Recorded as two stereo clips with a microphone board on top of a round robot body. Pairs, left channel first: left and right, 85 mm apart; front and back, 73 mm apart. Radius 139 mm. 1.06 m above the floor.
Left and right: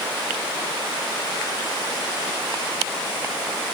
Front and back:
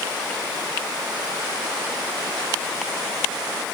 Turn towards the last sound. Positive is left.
No sound to turn to.